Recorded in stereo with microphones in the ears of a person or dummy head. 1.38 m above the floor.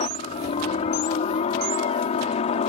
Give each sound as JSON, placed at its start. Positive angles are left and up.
{"t": 0.0, "sound": "a helicopter", "side_deg": 40}